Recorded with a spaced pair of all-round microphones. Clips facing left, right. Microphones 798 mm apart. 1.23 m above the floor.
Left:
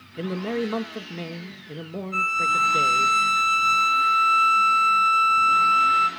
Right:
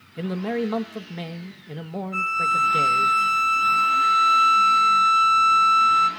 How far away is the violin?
About 1.3 m.